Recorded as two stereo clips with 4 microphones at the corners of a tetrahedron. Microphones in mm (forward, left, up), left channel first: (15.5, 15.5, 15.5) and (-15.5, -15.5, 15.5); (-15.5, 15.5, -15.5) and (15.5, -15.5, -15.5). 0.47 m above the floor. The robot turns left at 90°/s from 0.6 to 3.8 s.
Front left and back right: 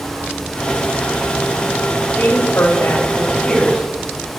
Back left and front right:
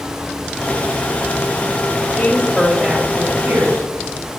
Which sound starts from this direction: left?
A woman speaking, at 2.1 s.